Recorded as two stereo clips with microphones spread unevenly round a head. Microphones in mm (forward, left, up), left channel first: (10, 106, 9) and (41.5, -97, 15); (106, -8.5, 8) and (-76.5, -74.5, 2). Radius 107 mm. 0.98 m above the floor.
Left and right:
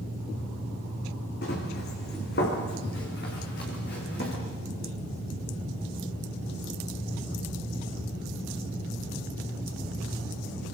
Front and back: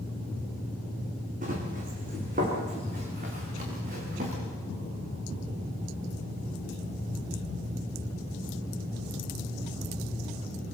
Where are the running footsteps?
145° left, 4 m.